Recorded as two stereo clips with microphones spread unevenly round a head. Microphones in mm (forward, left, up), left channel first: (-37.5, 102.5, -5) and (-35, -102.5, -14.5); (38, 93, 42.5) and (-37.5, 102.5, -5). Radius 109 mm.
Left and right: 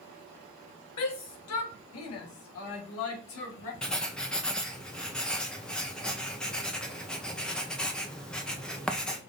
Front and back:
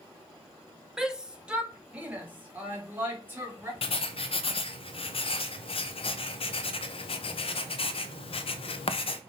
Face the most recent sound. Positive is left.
turn(degrees=5)